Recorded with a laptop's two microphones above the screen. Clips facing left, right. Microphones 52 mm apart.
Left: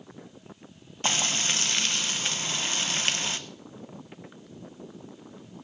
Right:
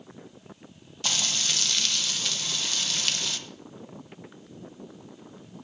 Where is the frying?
30° left (ahead or behind), 0.8 m.